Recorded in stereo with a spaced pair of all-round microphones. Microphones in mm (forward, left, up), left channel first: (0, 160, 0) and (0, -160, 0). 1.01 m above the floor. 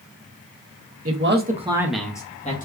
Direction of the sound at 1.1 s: 45° right (ahead or behind).